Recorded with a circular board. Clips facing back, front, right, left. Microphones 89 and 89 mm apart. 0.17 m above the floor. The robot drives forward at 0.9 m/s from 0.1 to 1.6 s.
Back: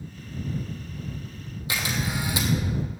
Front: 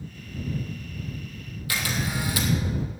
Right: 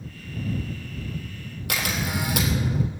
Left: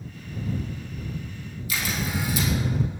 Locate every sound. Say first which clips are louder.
1.7 s a camera shutter: even, right 1 dB; 115° right, 2 m